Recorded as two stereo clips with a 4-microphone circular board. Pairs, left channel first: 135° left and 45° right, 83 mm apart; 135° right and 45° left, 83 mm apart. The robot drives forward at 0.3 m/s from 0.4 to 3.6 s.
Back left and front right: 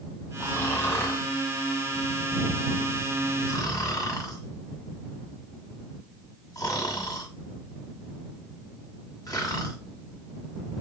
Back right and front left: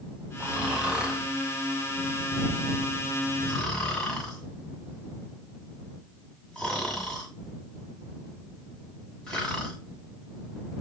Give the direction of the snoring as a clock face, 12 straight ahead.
9 o'clock.